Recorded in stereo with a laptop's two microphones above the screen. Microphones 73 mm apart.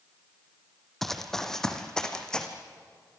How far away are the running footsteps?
About 1.9 m.